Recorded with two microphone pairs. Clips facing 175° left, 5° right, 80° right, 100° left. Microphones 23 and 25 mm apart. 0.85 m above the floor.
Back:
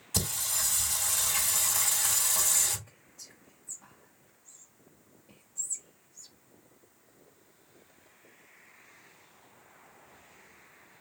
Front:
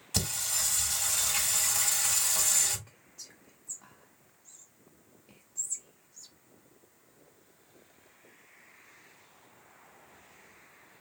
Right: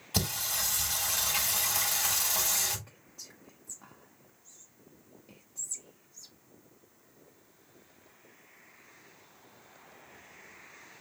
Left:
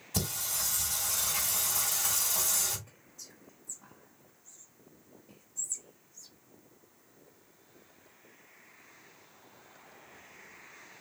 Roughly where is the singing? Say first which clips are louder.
Even, right 3 dB; right.